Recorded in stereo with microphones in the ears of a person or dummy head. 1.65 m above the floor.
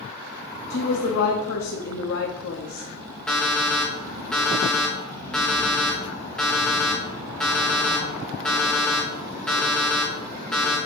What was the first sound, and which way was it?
A woman speaking, 75° left (ahead or behind).